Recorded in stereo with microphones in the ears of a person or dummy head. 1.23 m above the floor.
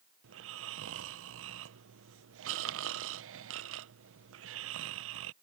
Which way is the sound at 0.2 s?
60° right (ahead or behind).